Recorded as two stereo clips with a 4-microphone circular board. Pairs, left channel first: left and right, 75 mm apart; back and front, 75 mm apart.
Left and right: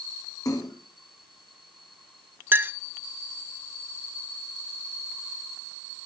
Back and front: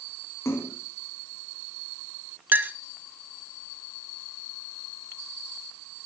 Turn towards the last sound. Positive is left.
turn(degrees=-50)